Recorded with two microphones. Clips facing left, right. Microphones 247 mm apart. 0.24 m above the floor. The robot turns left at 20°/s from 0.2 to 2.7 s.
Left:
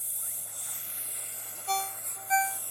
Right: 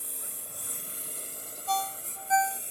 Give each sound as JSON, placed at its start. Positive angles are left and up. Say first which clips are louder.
{"t": 0.0, "sound": "a lawn mower", "louder": "right 7 dB", "azimuth_deg": -110}
{"t": 1.7, "sound": "a ringtone", "louder": "right 2 dB", "side_deg": 25}